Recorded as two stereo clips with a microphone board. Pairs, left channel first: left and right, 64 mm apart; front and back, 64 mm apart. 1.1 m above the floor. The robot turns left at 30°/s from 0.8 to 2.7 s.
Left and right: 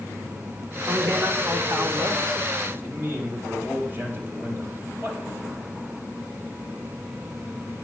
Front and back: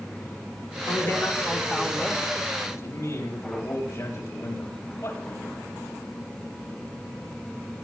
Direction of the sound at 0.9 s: 45° right.